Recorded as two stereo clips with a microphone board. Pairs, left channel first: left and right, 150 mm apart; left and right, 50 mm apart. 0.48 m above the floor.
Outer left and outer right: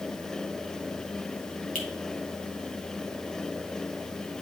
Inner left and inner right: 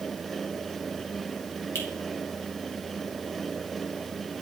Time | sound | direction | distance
1.8 | a finger snap | 65° left (ahead or behind) | 2 m